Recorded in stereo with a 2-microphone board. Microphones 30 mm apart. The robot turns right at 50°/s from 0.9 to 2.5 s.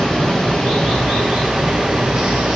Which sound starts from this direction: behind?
Running water, at 0.0 s.